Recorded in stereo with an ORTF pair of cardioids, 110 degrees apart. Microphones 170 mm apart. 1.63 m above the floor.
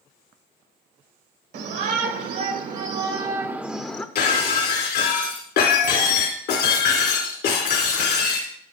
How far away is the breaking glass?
About 3 m.